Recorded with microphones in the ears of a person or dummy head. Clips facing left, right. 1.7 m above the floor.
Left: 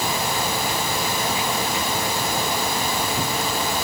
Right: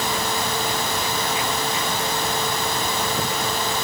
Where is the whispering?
I don't hear whispering.